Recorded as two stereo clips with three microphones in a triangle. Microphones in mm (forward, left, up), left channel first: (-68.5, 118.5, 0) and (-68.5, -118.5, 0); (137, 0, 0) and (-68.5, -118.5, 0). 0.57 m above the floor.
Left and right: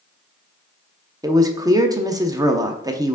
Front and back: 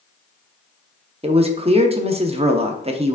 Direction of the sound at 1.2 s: 145° right.